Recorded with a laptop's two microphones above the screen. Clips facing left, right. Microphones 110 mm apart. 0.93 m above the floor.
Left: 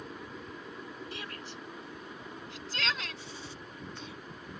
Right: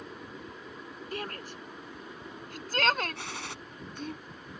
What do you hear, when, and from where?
1.1 s a shout: 45° right (ahead or behind); by 4.2 s 55° right (ahead or behind)
3.1 s a gunshot: 85° right